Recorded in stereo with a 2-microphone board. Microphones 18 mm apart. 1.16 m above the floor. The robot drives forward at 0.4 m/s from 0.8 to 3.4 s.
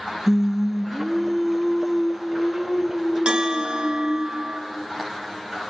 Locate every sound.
0.3 s singing: 25° right (ahead or behind), 0.5 m; by 4.2 s 10° right (ahead or behind), 1.5 m
3.2 s a bell: 70° right (ahead or behind), 1.0 m; by 4.6 s 75° right (ahead or behind), 1.0 m